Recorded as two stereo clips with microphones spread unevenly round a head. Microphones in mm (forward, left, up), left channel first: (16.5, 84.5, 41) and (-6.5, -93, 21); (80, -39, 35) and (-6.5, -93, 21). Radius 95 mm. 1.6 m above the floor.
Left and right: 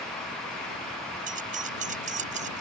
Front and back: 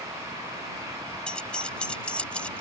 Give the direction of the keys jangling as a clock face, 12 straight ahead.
2 o'clock.